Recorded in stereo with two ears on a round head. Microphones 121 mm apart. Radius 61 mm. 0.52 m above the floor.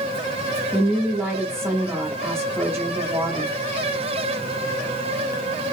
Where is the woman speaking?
20° right (ahead or behind), 0.6 m.